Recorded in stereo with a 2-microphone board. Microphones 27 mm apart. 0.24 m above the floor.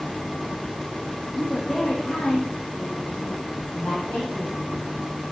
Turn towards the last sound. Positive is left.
turn(degrees=60)  # may be behind; listen again after turning